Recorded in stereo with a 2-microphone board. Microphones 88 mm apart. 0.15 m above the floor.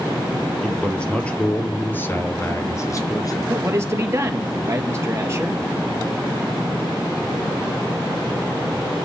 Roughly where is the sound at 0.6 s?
Centre.